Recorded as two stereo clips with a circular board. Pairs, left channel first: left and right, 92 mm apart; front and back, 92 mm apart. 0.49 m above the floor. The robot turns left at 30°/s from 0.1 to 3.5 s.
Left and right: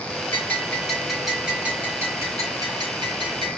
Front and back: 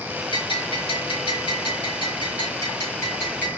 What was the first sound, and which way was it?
A bell, 25° left.